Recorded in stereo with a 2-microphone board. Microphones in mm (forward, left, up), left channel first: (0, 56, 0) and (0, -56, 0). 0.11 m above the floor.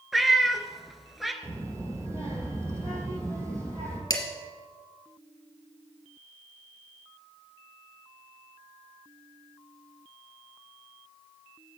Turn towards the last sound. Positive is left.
turn(degrees=35)  # may be behind; listen again after turning